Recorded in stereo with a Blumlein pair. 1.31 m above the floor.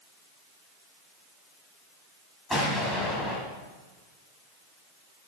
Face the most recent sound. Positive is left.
turn(degrees=0)